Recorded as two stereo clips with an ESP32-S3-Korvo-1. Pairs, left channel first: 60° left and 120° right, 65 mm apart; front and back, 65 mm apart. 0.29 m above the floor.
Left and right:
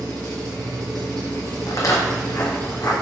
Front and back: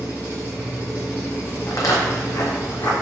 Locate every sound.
0.0 s an engine running: 115° right, 1.3 m
1.7 s footsteps: 35° left, 0.6 m; by 2.9 s 20° left, 1.2 m